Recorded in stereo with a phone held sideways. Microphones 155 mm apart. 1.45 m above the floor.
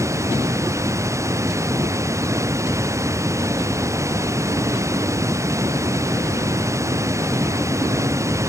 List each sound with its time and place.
0.0 s running water: 20° right (ahead or behind)